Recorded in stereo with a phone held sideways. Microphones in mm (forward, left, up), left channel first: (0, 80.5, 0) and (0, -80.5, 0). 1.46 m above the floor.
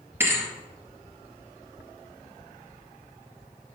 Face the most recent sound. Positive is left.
turn(degrees=-15)  # may be behind; listen again after turning